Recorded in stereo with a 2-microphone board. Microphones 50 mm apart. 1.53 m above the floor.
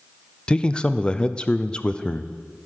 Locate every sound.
0.5 s a man speaking: 20° left (ahead or behind), 0.5 m